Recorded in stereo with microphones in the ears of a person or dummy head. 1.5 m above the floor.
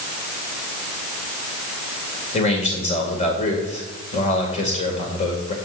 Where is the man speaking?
40° left (ahead or behind), 2 m.